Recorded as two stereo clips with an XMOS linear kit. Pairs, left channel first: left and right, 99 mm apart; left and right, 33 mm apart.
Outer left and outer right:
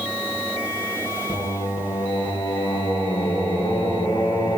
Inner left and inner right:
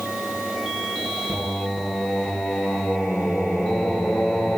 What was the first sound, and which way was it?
Singing, 55° left (ahead or behind).